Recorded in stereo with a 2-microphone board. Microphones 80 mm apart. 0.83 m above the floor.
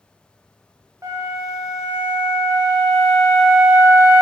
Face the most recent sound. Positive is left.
turn(degrees=-40)  # may be behind; listen again after turning